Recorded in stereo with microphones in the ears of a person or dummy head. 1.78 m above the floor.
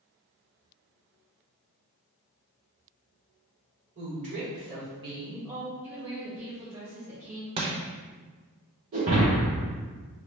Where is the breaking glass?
30° right (ahead or behind), 1.1 m.